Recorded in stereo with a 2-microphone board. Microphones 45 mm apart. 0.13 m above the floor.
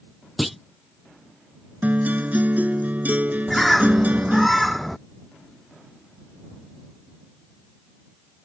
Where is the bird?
Centre (ahead or behind).